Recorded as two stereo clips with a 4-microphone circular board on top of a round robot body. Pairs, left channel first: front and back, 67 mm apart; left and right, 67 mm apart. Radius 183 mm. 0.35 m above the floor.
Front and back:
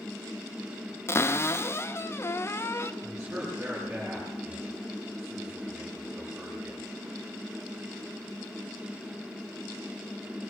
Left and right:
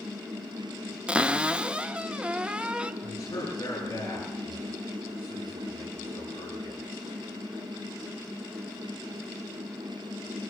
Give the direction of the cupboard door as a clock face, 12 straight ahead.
1 o'clock.